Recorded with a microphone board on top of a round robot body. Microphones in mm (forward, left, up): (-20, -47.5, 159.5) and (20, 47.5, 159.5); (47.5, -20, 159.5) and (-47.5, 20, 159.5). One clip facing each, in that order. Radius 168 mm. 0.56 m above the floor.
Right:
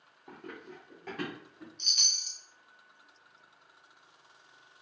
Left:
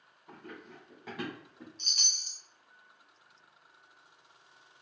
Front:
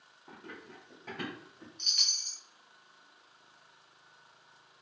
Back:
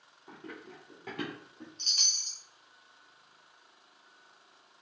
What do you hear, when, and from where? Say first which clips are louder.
0.3 s running footsteps: right 2 dB, back 2 dB; 120° right, 0.6 m; by 1.7 s 140° left, 1.6 m
1.8 s a chime: right 1 dB, even; 110° left, 0.8 m